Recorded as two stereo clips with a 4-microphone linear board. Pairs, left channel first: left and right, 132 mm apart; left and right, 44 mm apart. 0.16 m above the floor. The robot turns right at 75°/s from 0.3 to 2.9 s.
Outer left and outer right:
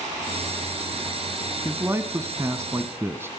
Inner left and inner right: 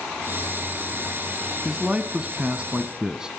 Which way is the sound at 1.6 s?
15° right (ahead or behind).